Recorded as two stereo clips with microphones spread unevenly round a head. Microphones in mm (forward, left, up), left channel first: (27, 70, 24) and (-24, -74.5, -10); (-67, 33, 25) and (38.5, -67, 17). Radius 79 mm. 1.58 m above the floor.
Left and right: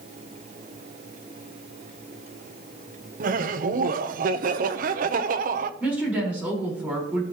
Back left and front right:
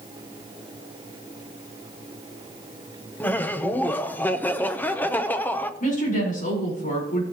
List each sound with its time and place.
3.2 s laughter: 150° right, 0.8 m
5.8 s a woman speaking: 170° left, 4.5 m